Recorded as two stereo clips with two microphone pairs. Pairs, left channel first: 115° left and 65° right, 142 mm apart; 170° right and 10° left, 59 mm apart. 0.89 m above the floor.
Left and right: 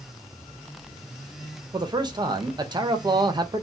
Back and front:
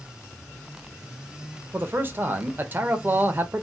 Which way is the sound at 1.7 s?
25° right.